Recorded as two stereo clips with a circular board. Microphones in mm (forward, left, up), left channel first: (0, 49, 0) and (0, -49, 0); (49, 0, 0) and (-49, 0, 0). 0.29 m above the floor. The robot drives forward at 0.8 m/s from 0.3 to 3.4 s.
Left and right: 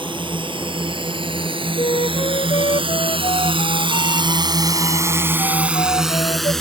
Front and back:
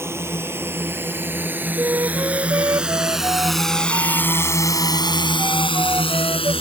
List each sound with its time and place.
0.0 s a drone: 120° right; by 6.6 s 5° left
1.8 s a flute: 115° left; by 6.5 s 125° left